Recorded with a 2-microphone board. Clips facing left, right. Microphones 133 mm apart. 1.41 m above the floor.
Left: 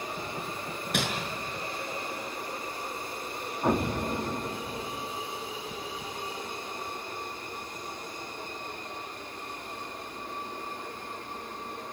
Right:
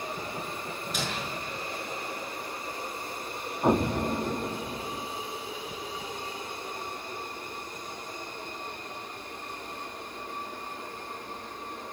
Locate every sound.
0.9 s crumpling: 65° left (ahead or behind), 5.5 m
3.6 s an explosion: 15° right (ahead or behind), 1.0 m